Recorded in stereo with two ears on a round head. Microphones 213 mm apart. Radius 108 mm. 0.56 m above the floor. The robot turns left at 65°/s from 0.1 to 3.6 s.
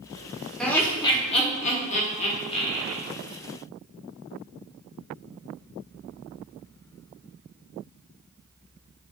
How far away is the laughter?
About 0.7 m.